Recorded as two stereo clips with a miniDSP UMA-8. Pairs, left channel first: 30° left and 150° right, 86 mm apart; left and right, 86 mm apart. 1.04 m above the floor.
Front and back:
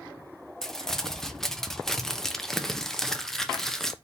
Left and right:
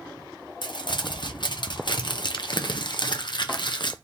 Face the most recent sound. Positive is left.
turn(degrees=115)